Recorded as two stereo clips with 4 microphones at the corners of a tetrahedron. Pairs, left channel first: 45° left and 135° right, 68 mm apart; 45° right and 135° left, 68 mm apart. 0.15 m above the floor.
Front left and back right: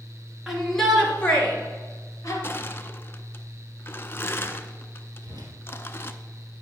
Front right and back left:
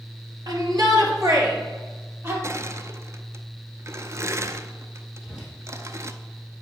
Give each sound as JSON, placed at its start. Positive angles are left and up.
{"t": 0.5, "sound": "a shout", "azimuth_deg": 140, "distance_m": 2.5}
{"t": 2.4, "sound": "crushing", "azimuth_deg": 100, "distance_m": 0.6}
{"t": 5.2, "sound": "a whoosh", "azimuth_deg": -145, "distance_m": 2.5}